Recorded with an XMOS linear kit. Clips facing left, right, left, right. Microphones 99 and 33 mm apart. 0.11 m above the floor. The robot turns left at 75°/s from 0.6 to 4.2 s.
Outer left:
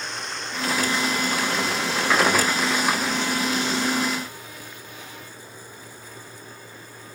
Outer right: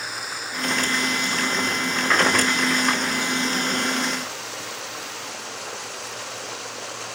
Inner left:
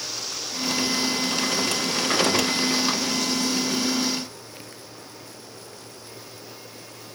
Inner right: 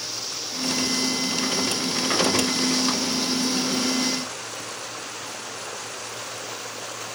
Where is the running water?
175° right; by 7.2 s 85° right.